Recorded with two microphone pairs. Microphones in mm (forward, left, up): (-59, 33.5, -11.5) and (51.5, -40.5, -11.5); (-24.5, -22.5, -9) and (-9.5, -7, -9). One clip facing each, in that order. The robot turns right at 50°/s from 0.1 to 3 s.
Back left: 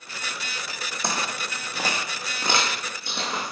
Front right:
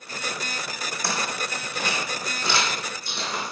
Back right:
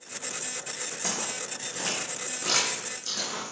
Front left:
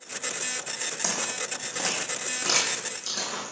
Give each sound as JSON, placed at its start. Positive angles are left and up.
{"t": 1.0, "sound": "footsteps", "azimuth_deg": 80, "distance_m": 2.5}